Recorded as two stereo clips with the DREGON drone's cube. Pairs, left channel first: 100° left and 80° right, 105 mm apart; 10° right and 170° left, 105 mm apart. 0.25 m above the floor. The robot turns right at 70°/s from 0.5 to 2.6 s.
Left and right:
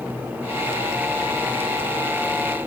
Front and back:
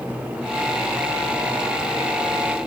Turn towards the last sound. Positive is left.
No sound to turn to.